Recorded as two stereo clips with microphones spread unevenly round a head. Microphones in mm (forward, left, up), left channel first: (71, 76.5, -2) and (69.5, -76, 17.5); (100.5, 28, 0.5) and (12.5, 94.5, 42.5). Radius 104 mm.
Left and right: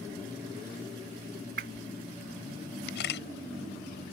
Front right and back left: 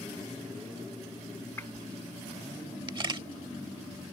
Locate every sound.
1.6 s a whoosh: 125° right
2.9 s a camera shutter: 100° left